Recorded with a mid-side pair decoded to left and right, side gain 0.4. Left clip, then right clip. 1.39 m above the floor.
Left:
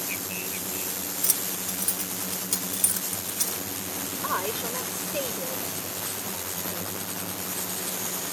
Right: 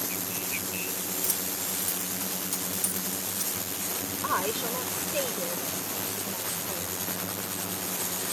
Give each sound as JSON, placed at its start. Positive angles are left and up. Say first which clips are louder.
{"t": 1.2, "sound": "keys jangling", "louder": "left 2 dB", "azimuth_deg": 50}
{"t": 4.2, "sound": "a woman speaking", "louder": "right 1 dB", "azimuth_deg": -5}